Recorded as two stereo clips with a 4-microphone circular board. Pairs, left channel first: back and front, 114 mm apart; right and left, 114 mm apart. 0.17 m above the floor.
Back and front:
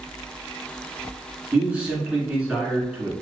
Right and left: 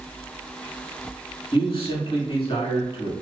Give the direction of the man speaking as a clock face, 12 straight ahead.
3 o'clock.